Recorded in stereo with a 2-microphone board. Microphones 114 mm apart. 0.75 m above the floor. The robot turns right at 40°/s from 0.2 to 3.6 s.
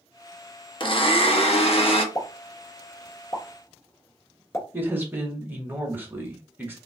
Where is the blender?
55° left, 0.7 m; by 2.0 s 105° left, 0.7 m.